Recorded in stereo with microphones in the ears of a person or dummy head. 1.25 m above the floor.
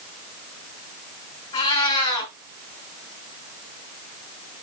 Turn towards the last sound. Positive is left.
turn(degrees=40)  # may be behind; listen again after turning